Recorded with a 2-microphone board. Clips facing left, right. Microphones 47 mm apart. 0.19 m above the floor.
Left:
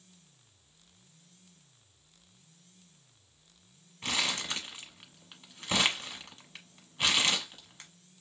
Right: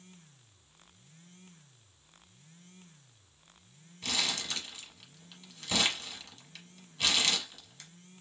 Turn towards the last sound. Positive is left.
turn(degrees=25)  # may be behind; listen again after turning